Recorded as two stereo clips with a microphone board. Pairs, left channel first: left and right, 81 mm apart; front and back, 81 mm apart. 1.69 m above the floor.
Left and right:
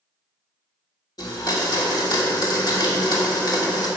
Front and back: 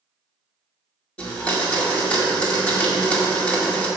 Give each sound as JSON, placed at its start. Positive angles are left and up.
{"t": 1.2, "sound": "a blender", "azimuth_deg": 75, "distance_m": 1.9}